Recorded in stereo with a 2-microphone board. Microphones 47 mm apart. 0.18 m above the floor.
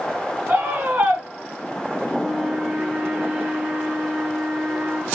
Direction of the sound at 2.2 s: 20° right (ahead or behind).